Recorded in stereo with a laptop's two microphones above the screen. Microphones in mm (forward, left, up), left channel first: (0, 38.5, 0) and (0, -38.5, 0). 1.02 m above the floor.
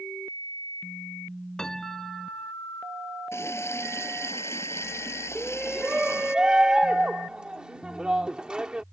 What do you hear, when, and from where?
1.6 s a piano: 10° left (ahead or behind)
3.3 s a running tap: 35° left (ahead or behind)
5.3 s a shout: 10° right (ahead or behind)